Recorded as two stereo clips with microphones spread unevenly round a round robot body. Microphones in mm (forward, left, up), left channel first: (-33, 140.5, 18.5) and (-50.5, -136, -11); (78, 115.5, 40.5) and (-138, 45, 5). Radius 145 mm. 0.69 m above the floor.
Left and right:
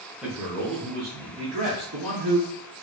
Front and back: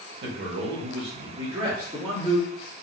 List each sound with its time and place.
0.2 s a man speaking: 175° right, 0.9 m; by 2.5 s 80° right, 1.1 m